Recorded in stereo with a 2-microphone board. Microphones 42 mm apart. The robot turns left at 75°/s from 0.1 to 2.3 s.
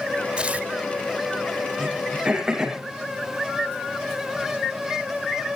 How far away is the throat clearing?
About 6 m.